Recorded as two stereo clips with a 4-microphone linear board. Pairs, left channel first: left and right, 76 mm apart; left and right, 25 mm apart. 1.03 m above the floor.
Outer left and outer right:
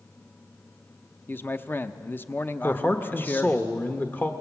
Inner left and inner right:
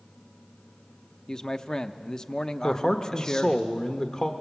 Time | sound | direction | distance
1.3 | a man speaking | 25° left (ahead or behind) | 0.8 m
2.6 | a man speaking | 25° left (ahead or behind) | 1.0 m